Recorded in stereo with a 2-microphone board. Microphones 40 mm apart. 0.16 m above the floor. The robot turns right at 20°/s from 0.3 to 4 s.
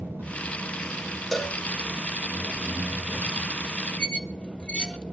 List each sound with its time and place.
0.0 s an engine running: 50° right, 9 m; by 5.1 s 25° left, 9 m
1.3 s a cowbell: 10° left (ahead or behind), 1.3 m; by 1.6 s 5° left (ahead or behind), 1.3 m
4.0 s a squeak: 25° left (ahead or behind), 0.9 m